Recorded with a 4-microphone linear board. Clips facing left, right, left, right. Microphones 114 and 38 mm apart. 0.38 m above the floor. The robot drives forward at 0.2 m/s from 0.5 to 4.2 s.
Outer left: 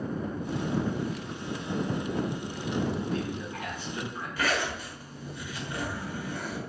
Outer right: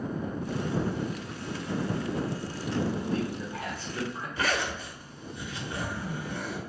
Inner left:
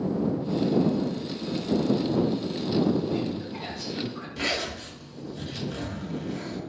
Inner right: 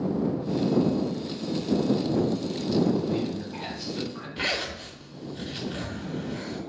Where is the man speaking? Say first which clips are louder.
Outer right 1 dB, even; 30° right (ahead or behind), 0.9 m; by 4.3 s 25° right (ahead or behind), 1.0 m.